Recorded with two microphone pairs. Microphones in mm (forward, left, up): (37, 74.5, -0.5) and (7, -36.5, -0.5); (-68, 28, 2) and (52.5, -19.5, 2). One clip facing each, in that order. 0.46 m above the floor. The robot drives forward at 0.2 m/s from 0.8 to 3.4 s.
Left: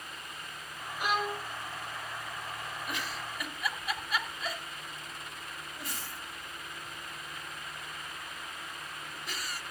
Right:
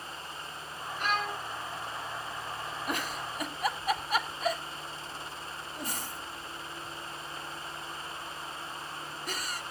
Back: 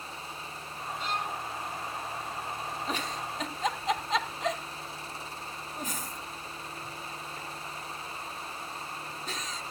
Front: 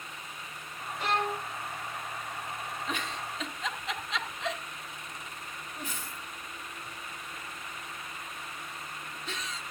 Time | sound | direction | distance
1.0 | a violin | straight ahead | 0.7 m
2.9 | a giggle | 150° right | 0.7 m